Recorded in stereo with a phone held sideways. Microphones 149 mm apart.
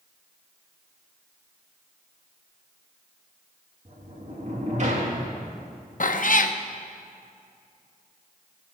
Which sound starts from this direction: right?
A sliding door, at 3.9 s.